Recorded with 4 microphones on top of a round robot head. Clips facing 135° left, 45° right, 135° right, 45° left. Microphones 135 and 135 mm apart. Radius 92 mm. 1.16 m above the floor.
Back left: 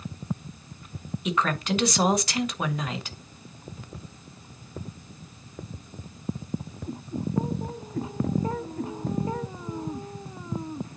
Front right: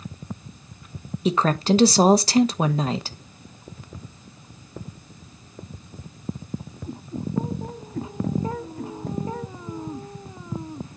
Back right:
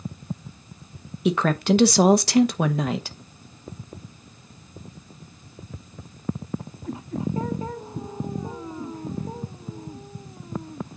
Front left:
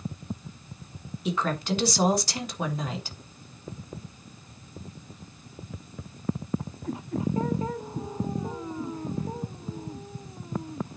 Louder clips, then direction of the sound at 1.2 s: Front right 6 dB, back right 7 dB; 105° right.